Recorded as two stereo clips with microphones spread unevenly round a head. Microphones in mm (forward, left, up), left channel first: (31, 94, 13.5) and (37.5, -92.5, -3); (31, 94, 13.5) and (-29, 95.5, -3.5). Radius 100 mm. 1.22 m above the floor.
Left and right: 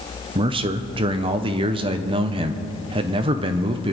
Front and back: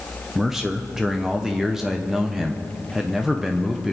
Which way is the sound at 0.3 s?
125° right.